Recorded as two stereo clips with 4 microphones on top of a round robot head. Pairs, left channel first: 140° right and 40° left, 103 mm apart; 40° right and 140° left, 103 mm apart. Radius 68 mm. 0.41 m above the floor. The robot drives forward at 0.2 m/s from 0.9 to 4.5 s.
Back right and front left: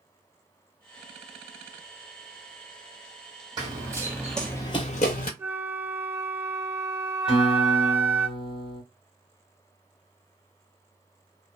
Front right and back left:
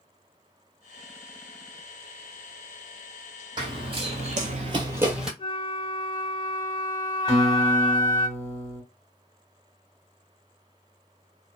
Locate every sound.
3.6 s running footsteps: 95° left, 1.0 m; by 5.3 s 135° right, 0.7 m
5.4 s a flute: 25° right, 1.1 m
7.3 s a guitar: 160° right, 1.6 m